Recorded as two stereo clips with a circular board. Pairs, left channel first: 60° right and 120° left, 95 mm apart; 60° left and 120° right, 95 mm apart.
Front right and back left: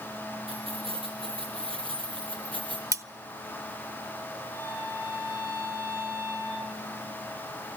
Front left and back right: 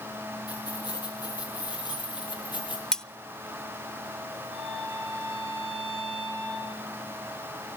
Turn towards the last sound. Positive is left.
turn(degrees=65)